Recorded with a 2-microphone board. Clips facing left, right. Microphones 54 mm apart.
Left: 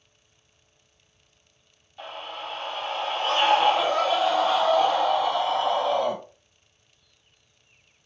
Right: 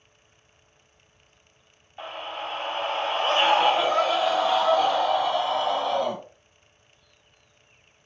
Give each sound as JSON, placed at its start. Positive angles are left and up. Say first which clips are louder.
{"t": 2.0, "sound": "a scream", "louder": "right 2 dB", "side_deg": -30, "distance_m": 0.8}